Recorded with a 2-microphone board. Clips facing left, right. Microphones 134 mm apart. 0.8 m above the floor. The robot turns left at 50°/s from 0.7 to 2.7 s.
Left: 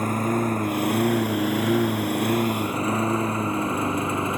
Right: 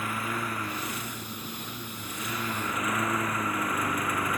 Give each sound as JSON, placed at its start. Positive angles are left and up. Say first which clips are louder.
{"t": 0.0, "sound": "a lawn mower", "louder": "left 10 dB", "side_deg": 40}